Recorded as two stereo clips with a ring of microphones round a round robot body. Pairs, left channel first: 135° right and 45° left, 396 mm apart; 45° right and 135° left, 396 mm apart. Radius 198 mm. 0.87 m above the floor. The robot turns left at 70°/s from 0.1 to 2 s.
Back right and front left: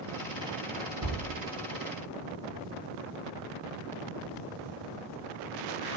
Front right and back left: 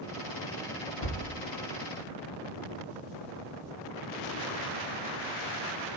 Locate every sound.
1.0 s a thud: 5° left, 6 m; by 1.2 s 10° right, 6 m